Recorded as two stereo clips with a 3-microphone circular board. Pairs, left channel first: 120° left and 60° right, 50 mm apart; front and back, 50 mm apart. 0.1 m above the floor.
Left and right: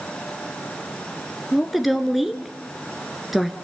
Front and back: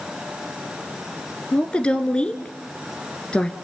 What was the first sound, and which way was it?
A woman speaking, 25° left.